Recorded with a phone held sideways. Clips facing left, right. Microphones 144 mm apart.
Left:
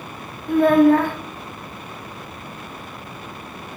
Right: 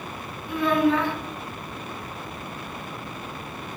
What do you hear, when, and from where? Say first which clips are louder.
0.5 s a child speaking: left 8 dB; 50° left (ahead or behind), 0.6 m